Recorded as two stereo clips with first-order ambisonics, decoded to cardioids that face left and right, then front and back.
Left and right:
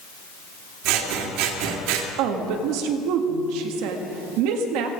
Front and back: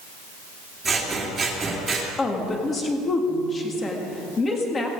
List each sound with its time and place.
0.8 s scissors: 105° right, 2.5 m
2.2 s a woman speaking: 70° right, 2 m